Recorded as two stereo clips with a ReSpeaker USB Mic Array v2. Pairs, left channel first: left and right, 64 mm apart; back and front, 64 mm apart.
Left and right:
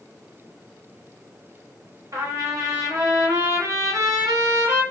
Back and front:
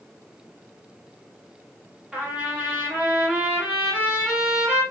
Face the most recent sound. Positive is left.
turn(degrees=-70)